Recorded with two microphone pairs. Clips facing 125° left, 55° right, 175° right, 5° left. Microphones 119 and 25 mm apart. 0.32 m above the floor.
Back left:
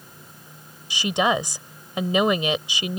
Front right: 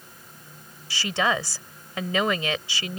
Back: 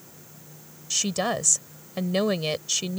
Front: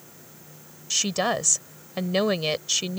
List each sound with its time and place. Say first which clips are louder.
0.9 s a woman speaking: back left 3 dB, front 2 dB; 70° left